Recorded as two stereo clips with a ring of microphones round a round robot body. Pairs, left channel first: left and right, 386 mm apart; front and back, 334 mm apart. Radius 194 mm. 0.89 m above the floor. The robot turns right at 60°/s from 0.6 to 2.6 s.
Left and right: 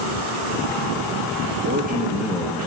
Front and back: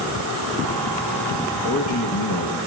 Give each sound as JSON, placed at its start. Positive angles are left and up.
{"t": 1.6, "sound": "a man speaking", "azimuth_deg": -40, "distance_m": 1.6}